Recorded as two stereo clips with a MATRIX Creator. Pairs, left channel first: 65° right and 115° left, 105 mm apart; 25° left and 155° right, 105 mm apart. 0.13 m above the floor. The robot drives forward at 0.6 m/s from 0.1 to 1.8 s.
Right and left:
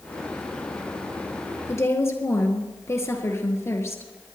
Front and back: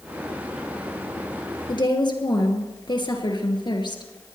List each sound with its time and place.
1.7 s a woman speaking: 10° right, 2.5 m